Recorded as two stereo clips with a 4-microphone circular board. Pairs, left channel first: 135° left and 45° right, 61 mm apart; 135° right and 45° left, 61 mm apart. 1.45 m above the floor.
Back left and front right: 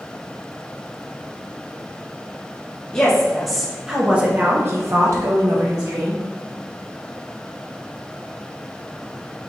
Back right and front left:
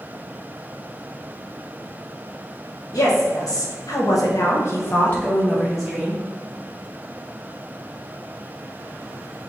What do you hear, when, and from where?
2.9 s a woman speaking: 145° right, 1.3 m; by 6.2 s 40° right, 1.2 m